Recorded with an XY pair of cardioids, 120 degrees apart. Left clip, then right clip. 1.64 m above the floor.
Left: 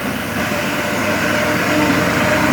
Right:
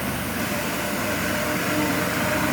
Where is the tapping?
No tapping in this recording.